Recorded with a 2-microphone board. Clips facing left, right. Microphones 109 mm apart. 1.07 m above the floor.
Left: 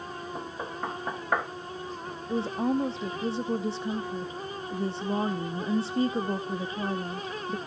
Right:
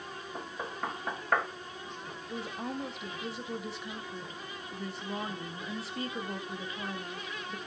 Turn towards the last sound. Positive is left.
turn(degrees=25)  # may be behind; listen again after turning